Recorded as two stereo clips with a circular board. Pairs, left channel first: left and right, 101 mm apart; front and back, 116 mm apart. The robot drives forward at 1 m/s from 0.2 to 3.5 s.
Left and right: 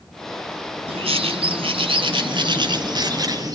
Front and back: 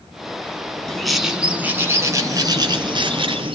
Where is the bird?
85° right, 2 m; by 3.5 s 140° right, 3 m.